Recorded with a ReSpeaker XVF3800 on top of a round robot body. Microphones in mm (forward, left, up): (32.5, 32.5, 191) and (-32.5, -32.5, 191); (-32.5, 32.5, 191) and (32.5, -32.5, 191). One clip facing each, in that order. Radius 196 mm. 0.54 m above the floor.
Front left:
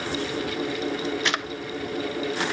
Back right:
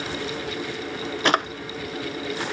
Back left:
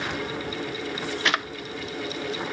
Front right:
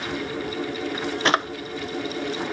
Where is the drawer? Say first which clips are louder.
Back right 6 dB, front right 5 dB; 95° right.